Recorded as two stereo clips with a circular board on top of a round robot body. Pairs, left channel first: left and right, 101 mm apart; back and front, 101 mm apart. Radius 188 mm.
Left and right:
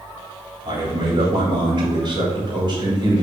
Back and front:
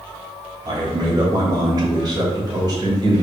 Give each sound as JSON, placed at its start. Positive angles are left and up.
{"t": 0.7, "sound": "a man speaking", "azimuth_deg": -50, "distance_m": 3.5}